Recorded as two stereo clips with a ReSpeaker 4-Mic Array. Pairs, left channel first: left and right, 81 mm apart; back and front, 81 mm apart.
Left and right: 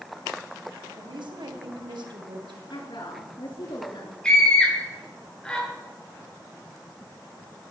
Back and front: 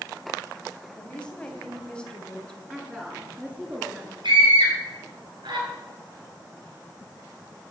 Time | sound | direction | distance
1.0 | a woman speaking | 100° right | 3 m
2.7 | a woman speaking | 75° left | 8.5 m
4.2 | a scream | 10° left | 9 m